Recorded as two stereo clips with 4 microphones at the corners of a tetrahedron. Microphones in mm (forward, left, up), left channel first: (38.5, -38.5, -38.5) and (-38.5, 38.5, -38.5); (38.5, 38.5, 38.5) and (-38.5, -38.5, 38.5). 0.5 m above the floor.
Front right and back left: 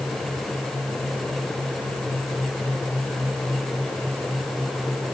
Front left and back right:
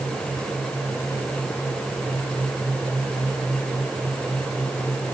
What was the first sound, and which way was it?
Only background noise.